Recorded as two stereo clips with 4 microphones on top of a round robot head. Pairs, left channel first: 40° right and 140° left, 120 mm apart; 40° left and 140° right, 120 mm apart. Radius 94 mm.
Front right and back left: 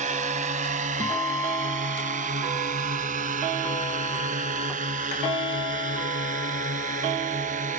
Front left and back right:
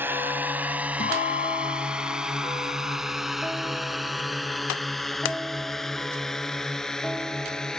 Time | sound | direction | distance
0.0 | a drone | 150° left | ?
1.0 | a guitar | 25° left | ?